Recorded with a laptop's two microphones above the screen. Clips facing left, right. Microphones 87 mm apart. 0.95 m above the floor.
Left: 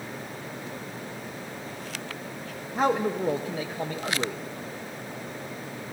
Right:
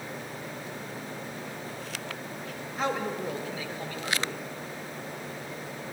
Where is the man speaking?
45° left (ahead or behind), 0.6 m.